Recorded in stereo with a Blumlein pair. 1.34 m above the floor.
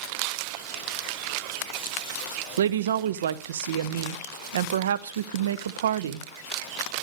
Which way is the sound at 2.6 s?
65° right.